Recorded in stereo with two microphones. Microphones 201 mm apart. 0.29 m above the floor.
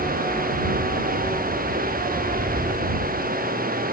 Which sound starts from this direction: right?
Running water, at 0.0 s.